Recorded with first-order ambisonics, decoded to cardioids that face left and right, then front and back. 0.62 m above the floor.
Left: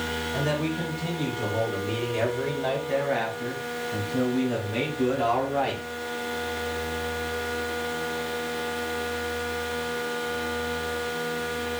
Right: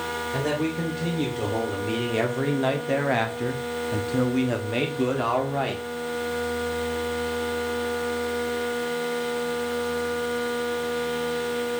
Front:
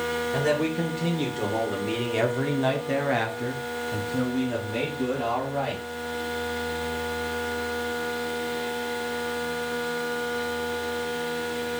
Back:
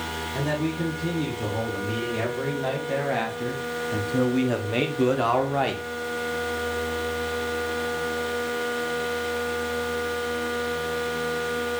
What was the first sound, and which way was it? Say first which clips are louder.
A man speaking: right 2 dB, front 2 dB; 35° right.